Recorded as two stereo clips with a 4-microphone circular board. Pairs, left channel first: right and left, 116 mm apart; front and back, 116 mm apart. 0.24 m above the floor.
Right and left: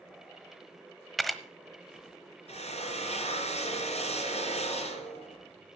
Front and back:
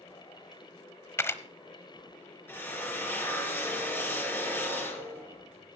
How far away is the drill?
About 3 m.